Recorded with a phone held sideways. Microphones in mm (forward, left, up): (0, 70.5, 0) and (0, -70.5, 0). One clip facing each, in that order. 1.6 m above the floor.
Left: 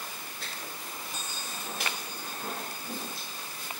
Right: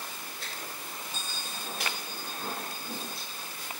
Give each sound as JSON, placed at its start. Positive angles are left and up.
{"t": 1.1, "sound": "a bell", "side_deg": 20, "distance_m": 1.0}